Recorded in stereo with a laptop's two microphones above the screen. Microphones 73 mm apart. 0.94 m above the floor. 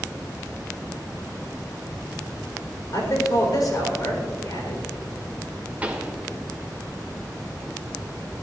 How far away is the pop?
About 1.4 m.